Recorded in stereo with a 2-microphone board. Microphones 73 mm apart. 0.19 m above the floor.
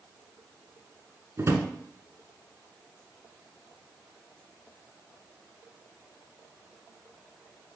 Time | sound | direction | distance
1.4 | a drawer | 40° right (ahead or behind) | 0.9 m